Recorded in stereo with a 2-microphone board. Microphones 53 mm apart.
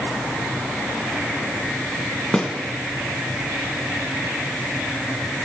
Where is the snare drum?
15° left (ahead or behind), 1.8 m.